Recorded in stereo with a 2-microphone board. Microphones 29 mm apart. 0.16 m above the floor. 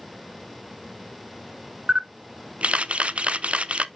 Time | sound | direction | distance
1.9 | a camera shutter | 45° right (ahead or behind) | 0.5 m